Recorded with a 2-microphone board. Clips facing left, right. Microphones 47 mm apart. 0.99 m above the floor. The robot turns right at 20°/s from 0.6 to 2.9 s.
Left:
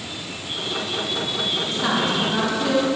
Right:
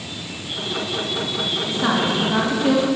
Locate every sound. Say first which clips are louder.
1.7 s a woman speaking: right 3 dB; 10° right (ahead or behind), 2 m; by 2.9 s 35° right (ahead or behind), 2 m